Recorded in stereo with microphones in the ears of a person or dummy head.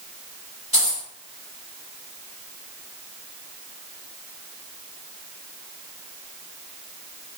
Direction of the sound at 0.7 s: 15° right (ahead or behind).